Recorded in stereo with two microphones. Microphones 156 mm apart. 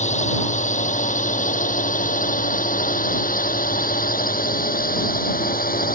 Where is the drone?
55° left (ahead or behind); by 6.0 s 75° left (ahead or behind).